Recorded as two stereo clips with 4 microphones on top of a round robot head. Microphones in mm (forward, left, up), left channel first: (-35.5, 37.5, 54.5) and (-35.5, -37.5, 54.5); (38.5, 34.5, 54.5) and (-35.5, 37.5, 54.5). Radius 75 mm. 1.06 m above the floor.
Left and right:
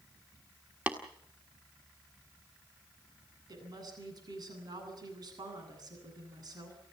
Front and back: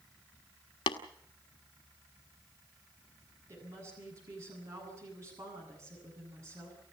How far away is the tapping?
About 1.5 m.